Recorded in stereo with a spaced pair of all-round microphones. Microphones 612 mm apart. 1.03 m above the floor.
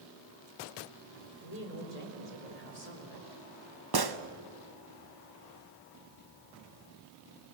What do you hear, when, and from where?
1.4 s a woman speaking: 80° left, 4 m
3.9 s a gunshot: 40° right (ahead or behind), 0.9 m